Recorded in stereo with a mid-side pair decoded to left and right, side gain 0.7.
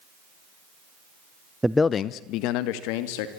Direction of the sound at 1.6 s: 10° right.